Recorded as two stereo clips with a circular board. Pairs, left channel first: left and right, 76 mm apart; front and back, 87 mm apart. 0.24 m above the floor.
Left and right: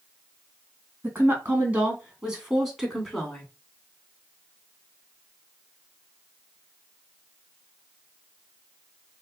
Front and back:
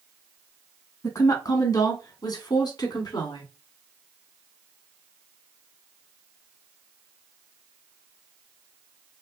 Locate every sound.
1.0 s a woman speaking: 35° right, 2.5 m; by 3.5 s 10° left, 2.5 m